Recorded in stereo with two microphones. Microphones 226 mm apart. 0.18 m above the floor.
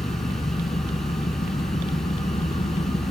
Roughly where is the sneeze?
No sneeze in this recording.